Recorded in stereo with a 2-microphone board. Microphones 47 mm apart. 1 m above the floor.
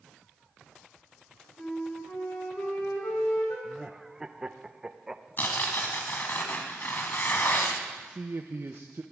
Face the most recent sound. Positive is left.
turn(degrees=-50)  # may be behind; listen again after turning